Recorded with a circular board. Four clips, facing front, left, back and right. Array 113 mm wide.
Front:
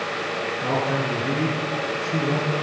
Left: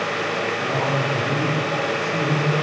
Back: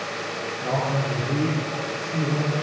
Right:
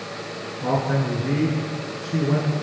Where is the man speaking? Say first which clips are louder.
Right 4 dB, front 1 dB; 60° right, 8 m; by 2.5 s 55° right, 8.5 m.